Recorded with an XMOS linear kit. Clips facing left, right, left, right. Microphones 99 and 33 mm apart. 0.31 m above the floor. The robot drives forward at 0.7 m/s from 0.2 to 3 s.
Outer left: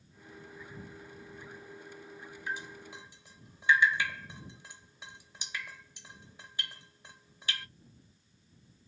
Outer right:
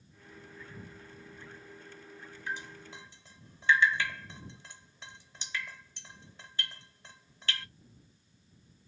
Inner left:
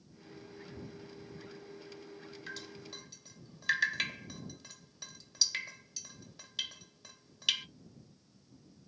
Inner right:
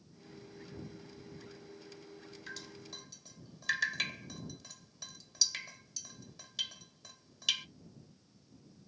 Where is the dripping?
15° left (ahead or behind), 1.0 m.